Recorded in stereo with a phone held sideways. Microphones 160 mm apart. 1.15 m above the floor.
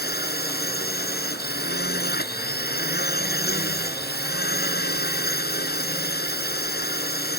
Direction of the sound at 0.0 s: 85° left.